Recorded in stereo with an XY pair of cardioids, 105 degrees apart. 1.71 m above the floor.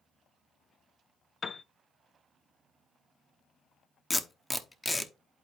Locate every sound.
1.4 s a piano: 40° left, 0.5 m
4.1 s tape being pulled: 15° left, 1.0 m